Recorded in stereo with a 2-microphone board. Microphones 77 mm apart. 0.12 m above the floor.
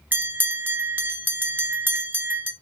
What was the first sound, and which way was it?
A bell, 25° right (ahead or behind).